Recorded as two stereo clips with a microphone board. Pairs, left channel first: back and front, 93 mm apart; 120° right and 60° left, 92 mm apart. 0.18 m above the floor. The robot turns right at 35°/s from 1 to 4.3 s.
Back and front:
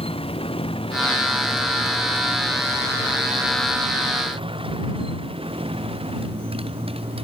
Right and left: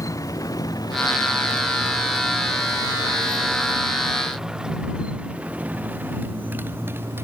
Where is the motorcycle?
175° right; by 7.2 s 5° right.